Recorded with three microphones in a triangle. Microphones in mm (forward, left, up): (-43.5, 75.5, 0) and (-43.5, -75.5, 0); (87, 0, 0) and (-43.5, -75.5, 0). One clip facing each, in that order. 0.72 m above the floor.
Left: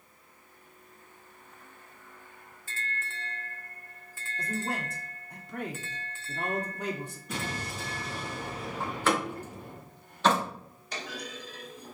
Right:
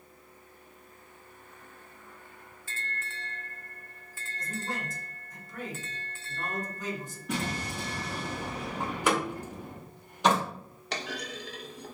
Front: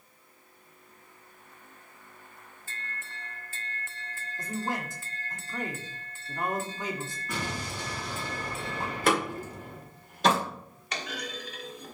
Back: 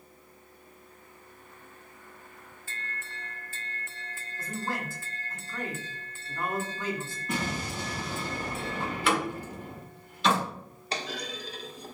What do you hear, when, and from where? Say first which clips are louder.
4.4 s a man speaking: left 3 dB, front 2 dB; 100° left, 1.4 m
7.3 s an explosion: right 4 dB, back 4 dB; 85° right, 3.5 m
8.8 s a door slam: even, front 2 dB; 15° right, 2 m
10.9 s a clunk: right 3 dB, back 2 dB; 95° right, 1.1 m